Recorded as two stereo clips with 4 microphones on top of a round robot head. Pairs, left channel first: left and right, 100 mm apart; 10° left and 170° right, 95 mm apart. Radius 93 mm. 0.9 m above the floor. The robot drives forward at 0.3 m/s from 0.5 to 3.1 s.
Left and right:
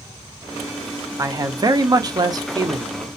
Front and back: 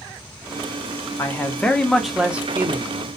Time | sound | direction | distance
1.2 | a man speaking | 45° right | 0.6 m